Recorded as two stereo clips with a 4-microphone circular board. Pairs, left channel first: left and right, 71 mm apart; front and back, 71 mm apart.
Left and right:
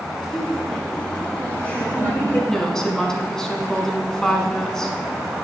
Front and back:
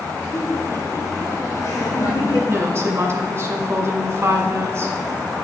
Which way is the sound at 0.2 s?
5° left.